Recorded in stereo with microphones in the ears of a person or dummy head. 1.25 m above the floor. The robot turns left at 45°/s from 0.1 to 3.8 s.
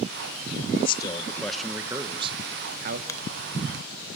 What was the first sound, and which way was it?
A man speaking, 30° left.